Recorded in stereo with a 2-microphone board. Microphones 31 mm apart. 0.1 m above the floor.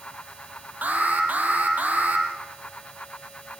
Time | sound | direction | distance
0.8 | an alarm | 60° right (ahead or behind) | 4.5 m